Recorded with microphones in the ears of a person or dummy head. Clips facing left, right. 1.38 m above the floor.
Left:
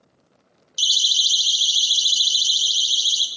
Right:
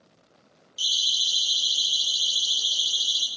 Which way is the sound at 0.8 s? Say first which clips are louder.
Left 5 dB; 65° left (ahead or behind).